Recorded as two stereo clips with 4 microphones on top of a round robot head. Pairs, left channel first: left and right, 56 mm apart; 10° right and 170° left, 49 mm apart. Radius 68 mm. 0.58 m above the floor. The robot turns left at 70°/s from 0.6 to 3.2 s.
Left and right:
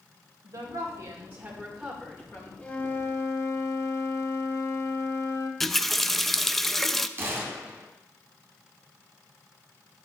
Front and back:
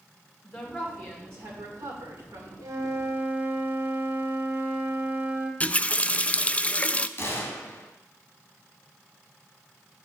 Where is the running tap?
10° left, 0.5 m.